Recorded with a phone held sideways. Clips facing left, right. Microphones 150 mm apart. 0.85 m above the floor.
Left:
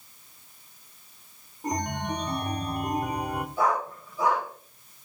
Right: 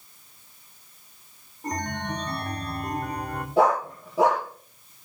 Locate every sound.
1.6 s a chime: 10° left (ahead or behind), 1.4 m
3.6 s a dog barking: 80° right, 7.5 m